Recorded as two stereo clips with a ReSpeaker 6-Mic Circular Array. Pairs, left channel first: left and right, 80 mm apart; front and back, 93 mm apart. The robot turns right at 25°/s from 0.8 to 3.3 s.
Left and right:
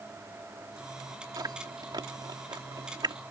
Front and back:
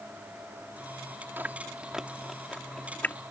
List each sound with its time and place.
1.4 s chewing: 115° right; by 3.2 s 70° right